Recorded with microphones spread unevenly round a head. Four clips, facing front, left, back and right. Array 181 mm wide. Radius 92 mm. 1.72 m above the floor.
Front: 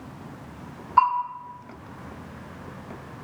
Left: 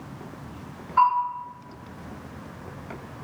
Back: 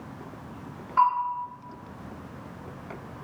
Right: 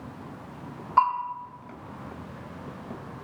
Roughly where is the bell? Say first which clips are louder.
Left 3 dB, front 2 dB; right.